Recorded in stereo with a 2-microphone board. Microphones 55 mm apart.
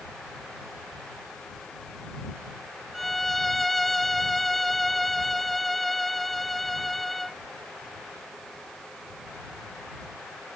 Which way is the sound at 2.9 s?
Centre (ahead or behind).